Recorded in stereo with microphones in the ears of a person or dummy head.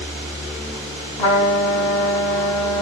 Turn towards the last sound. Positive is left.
turn(degrees=30)  # may be behind; listen again after turning